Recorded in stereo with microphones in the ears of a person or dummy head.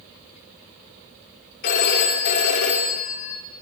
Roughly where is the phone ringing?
Left.